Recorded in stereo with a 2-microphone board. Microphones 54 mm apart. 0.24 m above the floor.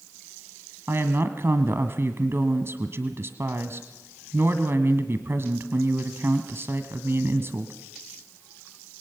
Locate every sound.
0.9 s a woman speaking: 50° right (ahead or behind), 1.4 m